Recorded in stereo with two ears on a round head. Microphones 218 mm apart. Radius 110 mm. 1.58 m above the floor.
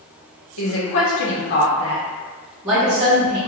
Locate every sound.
0.6 s a woman speaking: 65° left (ahead or behind), 1.1 m; by 3.4 s 25° right (ahead or behind), 1.5 m